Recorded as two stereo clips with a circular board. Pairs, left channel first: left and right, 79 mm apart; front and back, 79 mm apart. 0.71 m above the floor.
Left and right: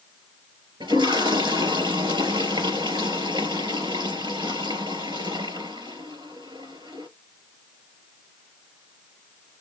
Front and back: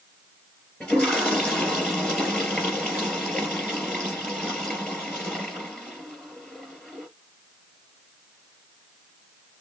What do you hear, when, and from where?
0.8 s a toilet flushing: 80° right, 4 m